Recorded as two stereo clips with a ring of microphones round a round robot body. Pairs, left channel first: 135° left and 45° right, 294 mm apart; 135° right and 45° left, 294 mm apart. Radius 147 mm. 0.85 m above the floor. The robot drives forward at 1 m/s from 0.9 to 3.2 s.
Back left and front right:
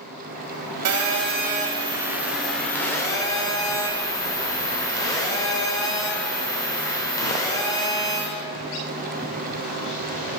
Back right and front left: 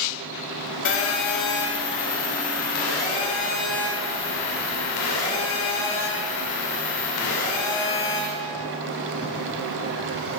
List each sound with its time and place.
0.8 s a phone buzzing: 85° right, 1.5 m; by 8.3 s 145° right, 2.5 m